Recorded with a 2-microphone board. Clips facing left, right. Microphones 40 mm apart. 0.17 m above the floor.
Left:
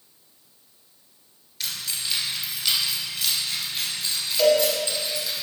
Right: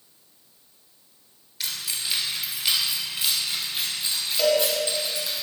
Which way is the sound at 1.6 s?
10° right (ahead or behind).